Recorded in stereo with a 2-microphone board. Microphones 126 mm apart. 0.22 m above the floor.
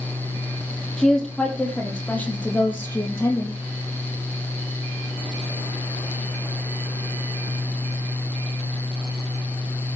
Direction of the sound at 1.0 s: 5° left (ahead or behind).